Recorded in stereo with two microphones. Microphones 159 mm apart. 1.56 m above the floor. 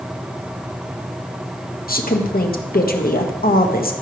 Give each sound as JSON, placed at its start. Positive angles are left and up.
{"t": 1.9, "sound": "a woman speaking", "side_deg": 70, "distance_m": 1.4}